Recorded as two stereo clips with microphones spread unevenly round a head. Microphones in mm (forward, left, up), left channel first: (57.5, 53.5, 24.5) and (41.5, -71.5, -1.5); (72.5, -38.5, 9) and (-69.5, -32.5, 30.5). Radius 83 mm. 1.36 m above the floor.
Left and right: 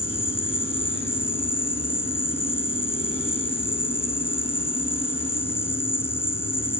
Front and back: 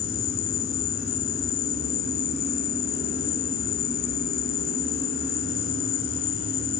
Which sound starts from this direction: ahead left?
An insect, at 0.0 s.